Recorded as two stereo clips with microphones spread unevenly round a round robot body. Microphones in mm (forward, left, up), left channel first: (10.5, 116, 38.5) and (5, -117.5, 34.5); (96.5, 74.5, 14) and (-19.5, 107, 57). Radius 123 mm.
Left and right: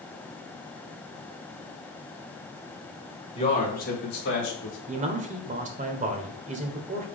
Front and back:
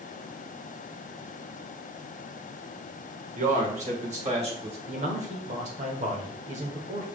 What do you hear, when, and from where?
3.4 s a man speaking: 150° left, 2 m; by 4.8 s 120° left, 3.5 m
4.9 s a man speaking: 145° right, 1.3 m